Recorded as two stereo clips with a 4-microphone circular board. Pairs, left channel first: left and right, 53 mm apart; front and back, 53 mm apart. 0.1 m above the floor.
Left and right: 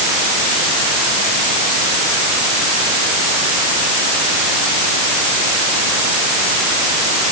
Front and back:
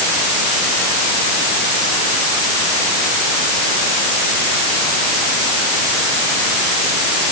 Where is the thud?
No thud in this recording.